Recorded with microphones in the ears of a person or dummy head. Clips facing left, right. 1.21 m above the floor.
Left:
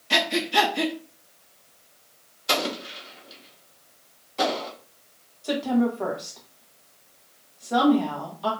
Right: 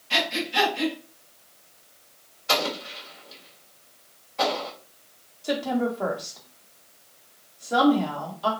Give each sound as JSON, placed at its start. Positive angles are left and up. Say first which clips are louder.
{"t": 0.1, "sound": "breathing", "louder": "left 4 dB", "side_deg": 60, "distance_m": 0.6}
{"t": 2.5, "sound": "an explosion", "louder": "even", "side_deg": 50, "distance_m": 0.8}
{"t": 5.4, "sound": "a woman speaking", "louder": "left 2 dB", "side_deg": 10, "distance_m": 1.0}